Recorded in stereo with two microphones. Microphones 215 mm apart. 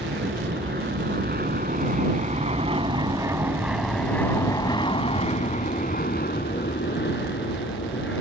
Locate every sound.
0.0 s an aircraft: 60° right (ahead or behind); by 8.2 s 60° left (ahead or behind)